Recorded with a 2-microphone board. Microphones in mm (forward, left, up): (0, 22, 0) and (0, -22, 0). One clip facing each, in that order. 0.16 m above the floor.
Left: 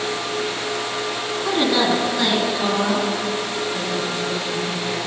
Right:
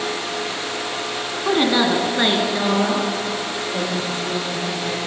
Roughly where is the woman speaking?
Centre.